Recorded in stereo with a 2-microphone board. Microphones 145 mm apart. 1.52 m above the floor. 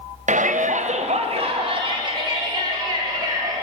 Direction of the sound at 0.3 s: 65° right (ahead or behind).